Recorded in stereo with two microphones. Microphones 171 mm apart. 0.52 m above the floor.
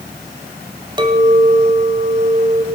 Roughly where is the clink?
Right.